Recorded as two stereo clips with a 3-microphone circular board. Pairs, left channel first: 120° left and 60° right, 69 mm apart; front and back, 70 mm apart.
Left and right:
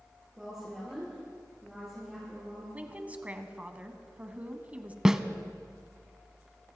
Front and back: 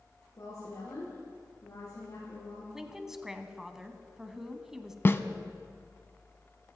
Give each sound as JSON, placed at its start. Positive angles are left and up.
{"t": 0.4, "sound": "a woman speaking", "azimuth_deg": 30, "distance_m": 5.5}
{"t": 2.7, "sound": "a woman speaking", "azimuth_deg": -105, "distance_m": 1.3}
{"t": 5.0, "sound": "a snare drum", "azimuth_deg": 15, "distance_m": 0.7}